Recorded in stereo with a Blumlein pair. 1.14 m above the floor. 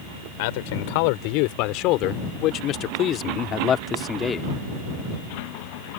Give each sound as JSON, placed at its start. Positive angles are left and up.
{"t": 0.4, "sound": "a man speaking", "azimuth_deg": 50}